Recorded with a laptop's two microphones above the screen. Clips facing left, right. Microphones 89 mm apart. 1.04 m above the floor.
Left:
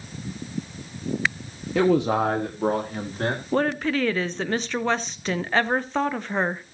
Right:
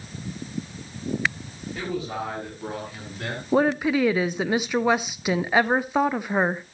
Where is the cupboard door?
I don't hear a cupboard door.